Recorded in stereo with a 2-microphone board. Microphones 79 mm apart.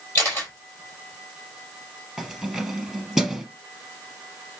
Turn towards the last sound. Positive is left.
turn(degrees=0)  # may be behind; listen again after turning